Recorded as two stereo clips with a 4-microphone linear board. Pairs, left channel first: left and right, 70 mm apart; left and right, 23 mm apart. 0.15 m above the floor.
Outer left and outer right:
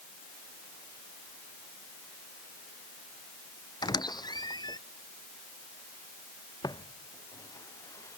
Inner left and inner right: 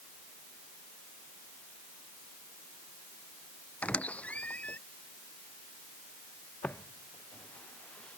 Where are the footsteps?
75° left (ahead or behind); by 8.2 s 45° left (ahead or behind).